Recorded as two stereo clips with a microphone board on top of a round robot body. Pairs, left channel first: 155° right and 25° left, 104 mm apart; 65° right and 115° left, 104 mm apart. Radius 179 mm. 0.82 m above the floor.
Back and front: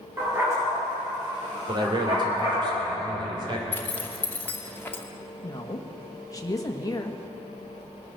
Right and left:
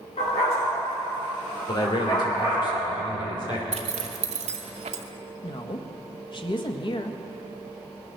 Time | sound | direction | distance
0.2 | a dog barking | 45° right | 6 m
1.7 | a man speaking | 20° right | 3.5 m
3.7 | a zipper | 130° left | 0.8 m
5.4 | a woman speaking | 105° right | 1.5 m